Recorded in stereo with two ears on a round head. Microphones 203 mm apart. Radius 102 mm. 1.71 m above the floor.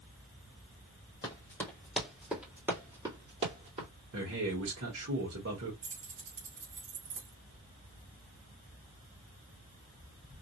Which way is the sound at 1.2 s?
15° left (ahead or behind).